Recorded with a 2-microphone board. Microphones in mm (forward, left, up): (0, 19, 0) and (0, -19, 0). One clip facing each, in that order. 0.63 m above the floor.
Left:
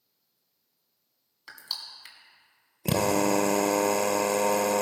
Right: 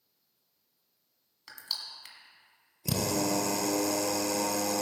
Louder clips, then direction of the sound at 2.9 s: Left 6 dB; 45° left (ahead or behind).